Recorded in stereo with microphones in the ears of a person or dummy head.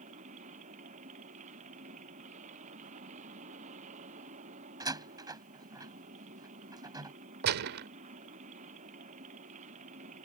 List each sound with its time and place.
0.0 s a machine running: 45° right (ahead or behind)
4.8 s a door slam: 20° right (ahead or behind)
7.4 s a gunshot: 60° right (ahead or behind)